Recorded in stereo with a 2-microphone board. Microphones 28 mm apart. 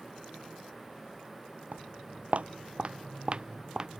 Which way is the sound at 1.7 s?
60° right (ahead or behind).